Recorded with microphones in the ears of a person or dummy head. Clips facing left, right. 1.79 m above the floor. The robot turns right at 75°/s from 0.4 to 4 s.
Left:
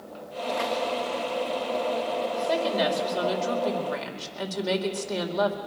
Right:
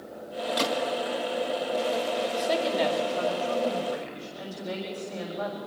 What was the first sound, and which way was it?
A gunshot, 50° right (ahead or behind).